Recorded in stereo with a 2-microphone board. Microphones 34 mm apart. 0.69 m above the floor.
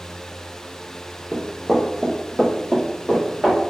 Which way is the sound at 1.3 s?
20° right (ahead or behind).